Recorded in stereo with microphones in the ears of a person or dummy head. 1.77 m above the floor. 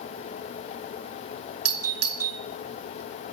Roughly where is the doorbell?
Right.